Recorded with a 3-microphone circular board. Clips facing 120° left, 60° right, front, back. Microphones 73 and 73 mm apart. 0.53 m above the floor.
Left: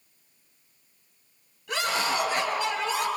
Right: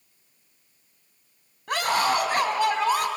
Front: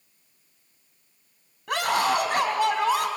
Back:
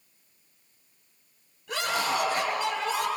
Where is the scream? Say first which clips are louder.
Right 4 dB, front 5 dB; 25° right, 4 m.